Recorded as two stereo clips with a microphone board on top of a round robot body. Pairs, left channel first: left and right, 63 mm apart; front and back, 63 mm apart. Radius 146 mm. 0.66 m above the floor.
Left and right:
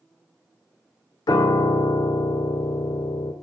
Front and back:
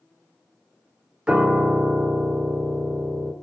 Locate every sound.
1.3 s a piano: 105° left, 0.8 m